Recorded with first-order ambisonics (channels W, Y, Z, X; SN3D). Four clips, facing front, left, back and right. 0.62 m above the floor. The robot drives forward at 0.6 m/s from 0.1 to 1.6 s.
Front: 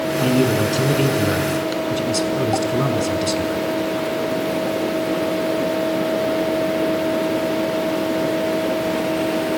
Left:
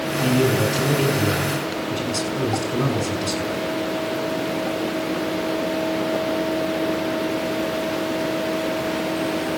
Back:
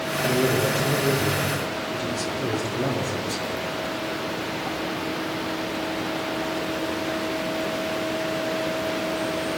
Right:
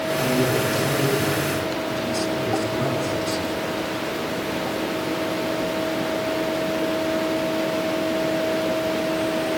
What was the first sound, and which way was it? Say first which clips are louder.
A man speaking: left 3 dB, front 3 dB; 15° left.